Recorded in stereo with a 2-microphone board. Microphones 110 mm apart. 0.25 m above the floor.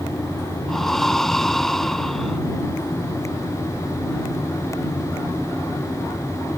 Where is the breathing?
5° left (ahead or behind).